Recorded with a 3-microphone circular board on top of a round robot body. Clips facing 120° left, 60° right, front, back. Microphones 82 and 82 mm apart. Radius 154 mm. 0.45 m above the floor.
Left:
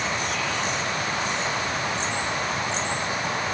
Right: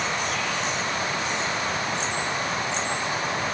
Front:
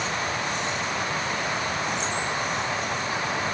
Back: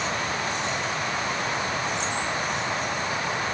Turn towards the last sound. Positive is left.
No sound to turn to.